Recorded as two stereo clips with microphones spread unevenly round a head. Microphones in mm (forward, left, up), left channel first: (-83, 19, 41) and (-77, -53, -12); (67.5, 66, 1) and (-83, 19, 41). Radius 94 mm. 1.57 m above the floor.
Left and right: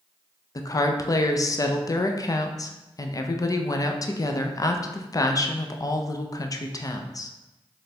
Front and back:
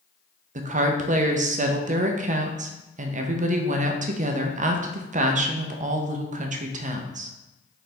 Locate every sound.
0.6 s a woman speaking: 150° left, 0.5 m